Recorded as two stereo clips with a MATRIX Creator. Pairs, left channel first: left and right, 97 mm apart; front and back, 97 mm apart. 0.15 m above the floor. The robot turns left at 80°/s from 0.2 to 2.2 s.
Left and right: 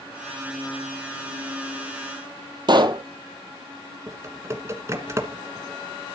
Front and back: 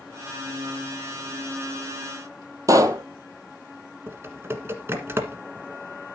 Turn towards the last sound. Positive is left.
turn(degrees=-130)